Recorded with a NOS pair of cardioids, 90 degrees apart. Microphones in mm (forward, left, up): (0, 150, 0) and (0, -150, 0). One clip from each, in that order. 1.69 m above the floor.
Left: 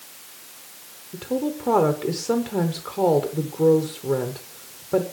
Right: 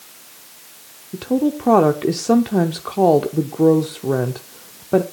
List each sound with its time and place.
1.1 s a woman speaking: 30° right, 0.8 m